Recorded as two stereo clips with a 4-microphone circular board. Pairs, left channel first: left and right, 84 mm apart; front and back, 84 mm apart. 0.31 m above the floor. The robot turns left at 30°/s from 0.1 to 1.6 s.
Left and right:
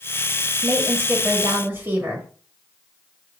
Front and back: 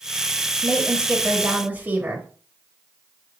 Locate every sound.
0.6 s a woman speaking: 100° right, 1.2 m; by 2.3 s 130° right, 1.2 m